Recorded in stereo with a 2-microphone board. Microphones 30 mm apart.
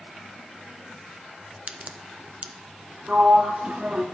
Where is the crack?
45° right (ahead or behind), 0.6 m.